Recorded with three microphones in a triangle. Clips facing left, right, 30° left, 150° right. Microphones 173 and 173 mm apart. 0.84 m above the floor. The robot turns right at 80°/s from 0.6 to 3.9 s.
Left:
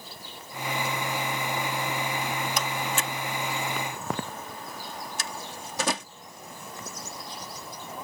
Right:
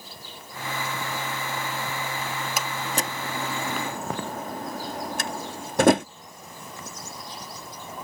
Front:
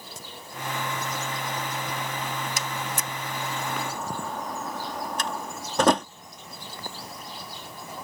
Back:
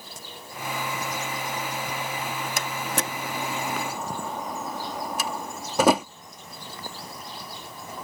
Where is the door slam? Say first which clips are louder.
Right 1 dB, back 2 dB; 175° right; by 6.1 s 65° right.